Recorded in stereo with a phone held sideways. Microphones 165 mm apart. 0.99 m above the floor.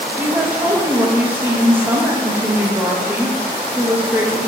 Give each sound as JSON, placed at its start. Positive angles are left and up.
{"t": 0.2, "sound": "a woman speaking", "side_deg": -10, "distance_m": 0.9}